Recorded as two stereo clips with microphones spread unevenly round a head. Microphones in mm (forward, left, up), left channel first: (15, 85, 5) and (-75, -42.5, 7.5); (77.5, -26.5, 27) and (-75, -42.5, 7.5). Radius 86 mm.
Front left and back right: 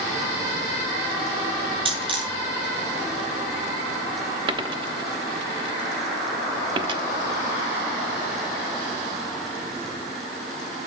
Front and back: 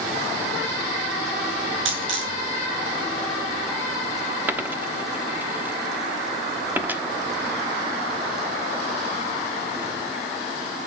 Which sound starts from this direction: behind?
A dropped coin, at 1.9 s.